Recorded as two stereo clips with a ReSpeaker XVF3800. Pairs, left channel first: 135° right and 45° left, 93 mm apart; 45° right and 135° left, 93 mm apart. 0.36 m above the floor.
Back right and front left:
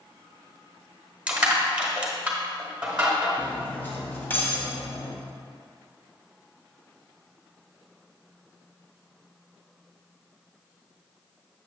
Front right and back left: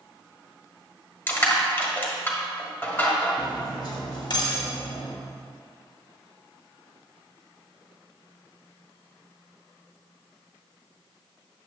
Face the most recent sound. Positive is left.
turn(degrees=-70)